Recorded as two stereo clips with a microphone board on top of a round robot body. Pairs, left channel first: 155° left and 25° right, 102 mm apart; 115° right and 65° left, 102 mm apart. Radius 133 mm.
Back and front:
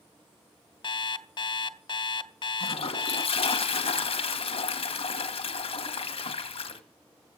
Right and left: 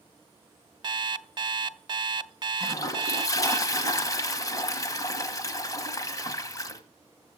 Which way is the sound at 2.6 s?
170° right.